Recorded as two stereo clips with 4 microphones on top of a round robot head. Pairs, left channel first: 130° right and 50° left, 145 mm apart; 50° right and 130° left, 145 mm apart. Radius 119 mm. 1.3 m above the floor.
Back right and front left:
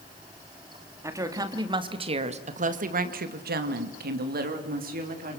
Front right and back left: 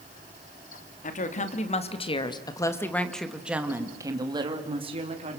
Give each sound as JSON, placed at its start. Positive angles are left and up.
{"t": 1.0, "sound": "a woman speaking", "azimuth_deg": -20, "distance_m": 3.5}